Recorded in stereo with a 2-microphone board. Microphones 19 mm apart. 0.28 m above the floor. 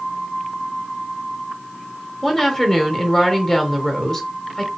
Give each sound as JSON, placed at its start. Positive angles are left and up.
{"t": 2.2, "sound": "a woman speaking", "side_deg": 20, "distance_m": 1.0}